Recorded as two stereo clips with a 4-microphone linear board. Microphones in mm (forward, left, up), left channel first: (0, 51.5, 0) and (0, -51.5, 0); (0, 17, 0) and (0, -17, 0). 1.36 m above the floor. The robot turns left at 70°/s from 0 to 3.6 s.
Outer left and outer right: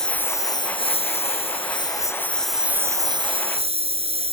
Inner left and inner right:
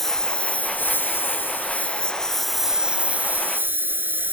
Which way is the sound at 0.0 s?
175° left.